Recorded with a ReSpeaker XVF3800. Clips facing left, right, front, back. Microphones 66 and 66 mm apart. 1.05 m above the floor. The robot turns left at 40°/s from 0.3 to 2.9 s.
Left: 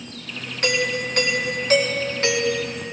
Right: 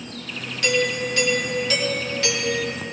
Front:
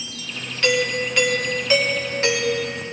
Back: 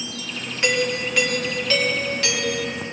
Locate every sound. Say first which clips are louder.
0.6 s a doorbell: right 1 dB, front 1 dB; 115° left, 1.5 m; by 2.8 s 25° left, 1.5 m